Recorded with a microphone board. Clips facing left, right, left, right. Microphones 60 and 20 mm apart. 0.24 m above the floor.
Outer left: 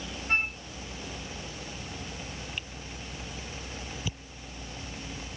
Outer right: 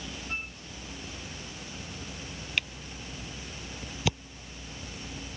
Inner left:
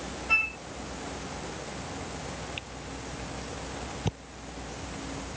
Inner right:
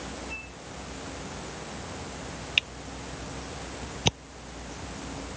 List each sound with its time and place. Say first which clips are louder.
0.3 s a flute: outer left 11 dB, inner left 14 dB; 75° left (ahead or behind)
2.6 s a camera shutter: outer right 5 dB, inner right 10 dB; 80° right